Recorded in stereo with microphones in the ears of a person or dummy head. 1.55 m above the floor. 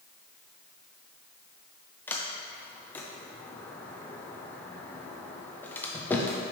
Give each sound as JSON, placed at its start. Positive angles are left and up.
{"t": 2.1, "sound": "a sliding door", "side_deg": 15, "distance_m": 0.6}